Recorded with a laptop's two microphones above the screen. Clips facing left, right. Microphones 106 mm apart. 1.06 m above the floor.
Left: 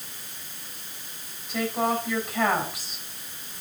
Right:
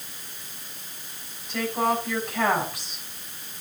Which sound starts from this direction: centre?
A woman speaking, at 1.5 s.